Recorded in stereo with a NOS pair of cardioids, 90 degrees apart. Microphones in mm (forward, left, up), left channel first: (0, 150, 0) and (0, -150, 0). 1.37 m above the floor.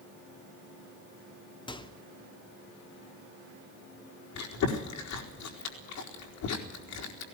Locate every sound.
1.7 s a microwave: 15° left, 2 m
4.3 s chewing: 65° left, 4.5 m